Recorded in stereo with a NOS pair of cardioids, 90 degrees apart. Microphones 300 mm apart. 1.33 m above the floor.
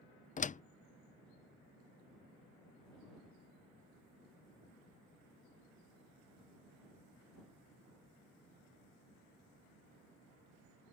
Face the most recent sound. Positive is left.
turn(degrees=25)